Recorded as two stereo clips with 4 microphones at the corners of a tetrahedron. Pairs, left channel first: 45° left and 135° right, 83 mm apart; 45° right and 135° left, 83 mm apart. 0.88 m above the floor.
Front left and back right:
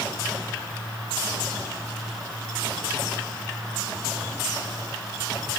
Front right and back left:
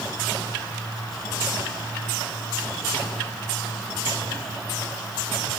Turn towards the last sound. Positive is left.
No sound to turn to.